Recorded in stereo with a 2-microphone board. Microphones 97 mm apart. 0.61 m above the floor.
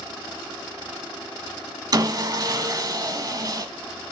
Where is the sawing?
45° right (ahead or behind), 1.2 m.